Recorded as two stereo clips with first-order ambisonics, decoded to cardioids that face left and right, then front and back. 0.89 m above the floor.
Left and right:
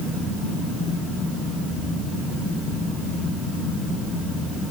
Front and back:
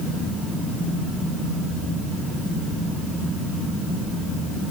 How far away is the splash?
I don't hear a splash.